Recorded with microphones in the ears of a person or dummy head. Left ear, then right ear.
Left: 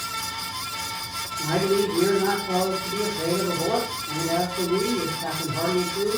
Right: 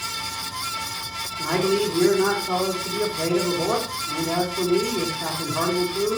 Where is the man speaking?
70° right (ahead or behind), 4.5 m.